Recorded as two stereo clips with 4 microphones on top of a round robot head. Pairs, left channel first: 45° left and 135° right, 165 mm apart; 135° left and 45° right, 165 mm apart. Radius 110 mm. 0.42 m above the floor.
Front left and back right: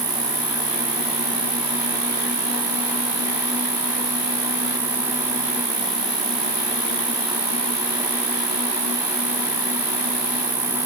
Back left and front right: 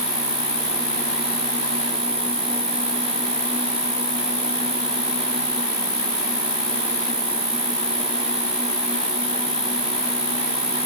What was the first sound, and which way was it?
An insect, 120° right.